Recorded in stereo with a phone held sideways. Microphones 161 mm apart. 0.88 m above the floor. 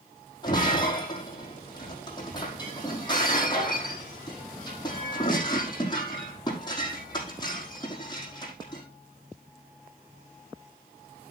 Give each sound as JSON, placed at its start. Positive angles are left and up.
{"t": 0.4, "sound": "breaking glass", "side_deg": 25, "distance_m": 5.0}